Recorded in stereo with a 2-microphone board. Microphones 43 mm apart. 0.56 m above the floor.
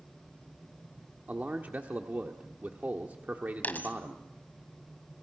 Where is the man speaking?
40° right (ahead or behind), 1.3 m.